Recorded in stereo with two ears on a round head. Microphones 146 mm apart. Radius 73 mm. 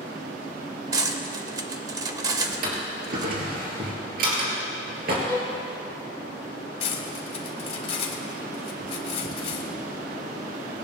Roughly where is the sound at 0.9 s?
Right.